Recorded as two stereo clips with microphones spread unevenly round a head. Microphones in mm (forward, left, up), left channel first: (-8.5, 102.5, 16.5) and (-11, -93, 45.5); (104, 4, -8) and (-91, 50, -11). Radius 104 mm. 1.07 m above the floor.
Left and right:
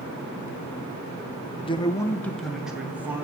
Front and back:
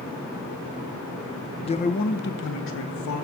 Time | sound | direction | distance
1.6 | a man speaking | 45° left | 0.9 m